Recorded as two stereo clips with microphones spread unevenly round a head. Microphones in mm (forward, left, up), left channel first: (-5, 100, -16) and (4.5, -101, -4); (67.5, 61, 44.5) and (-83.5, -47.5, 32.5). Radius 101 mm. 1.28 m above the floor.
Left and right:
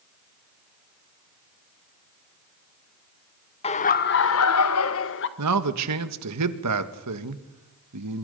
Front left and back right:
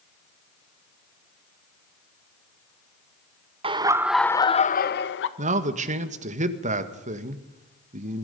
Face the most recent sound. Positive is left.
turn(degrees=-90)